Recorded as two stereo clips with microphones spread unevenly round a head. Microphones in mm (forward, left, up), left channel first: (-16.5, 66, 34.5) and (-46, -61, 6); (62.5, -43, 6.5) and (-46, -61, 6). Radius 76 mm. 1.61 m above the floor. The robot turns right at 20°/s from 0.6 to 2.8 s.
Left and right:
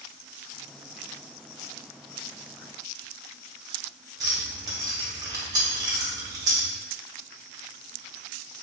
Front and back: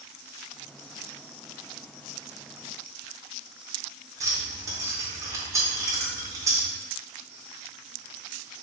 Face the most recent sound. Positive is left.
turn(degrees=-160)